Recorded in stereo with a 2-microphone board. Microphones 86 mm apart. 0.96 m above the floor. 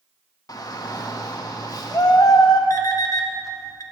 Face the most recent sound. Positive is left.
turn(degrees=45)  # may be behind; listen again after turning